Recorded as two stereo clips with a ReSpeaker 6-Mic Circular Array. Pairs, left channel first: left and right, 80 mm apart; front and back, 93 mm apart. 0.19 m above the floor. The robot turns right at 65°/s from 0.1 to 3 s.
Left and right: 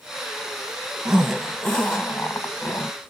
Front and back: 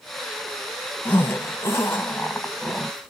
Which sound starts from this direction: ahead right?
A zipper, at 1.1 s.